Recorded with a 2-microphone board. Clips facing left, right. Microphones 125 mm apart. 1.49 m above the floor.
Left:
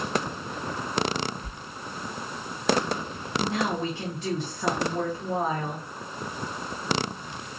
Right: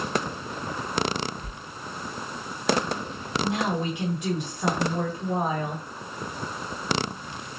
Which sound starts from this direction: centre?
A woman speaking, at 3.4 s.